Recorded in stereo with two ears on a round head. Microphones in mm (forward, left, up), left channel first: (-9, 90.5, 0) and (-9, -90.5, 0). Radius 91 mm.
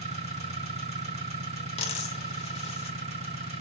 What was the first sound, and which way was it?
An engine running, 35° right (ahead or behind).